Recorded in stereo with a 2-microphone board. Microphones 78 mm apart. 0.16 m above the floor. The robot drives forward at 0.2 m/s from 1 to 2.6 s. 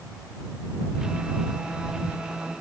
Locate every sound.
Only background noise.